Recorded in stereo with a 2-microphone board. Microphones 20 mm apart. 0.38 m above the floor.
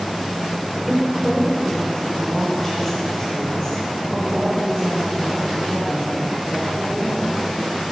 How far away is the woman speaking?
About 1.0 m.